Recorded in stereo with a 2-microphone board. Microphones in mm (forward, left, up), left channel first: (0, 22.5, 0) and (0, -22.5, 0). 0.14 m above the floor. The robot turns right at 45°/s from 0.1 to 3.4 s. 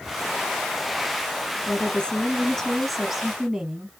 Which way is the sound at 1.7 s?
20° left (ahead or behind).